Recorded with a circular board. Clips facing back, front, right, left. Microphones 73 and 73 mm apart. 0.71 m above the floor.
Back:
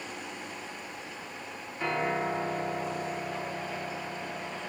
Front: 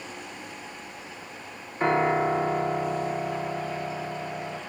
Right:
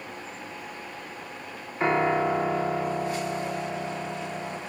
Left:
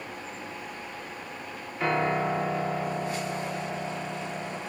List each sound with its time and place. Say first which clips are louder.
1.8 s a piano: front 7 dB, right 3 dB; 35° right, 1.7 m